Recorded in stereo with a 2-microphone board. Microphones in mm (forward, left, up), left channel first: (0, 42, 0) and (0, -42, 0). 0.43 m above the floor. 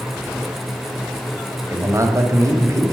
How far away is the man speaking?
About 1.9 m.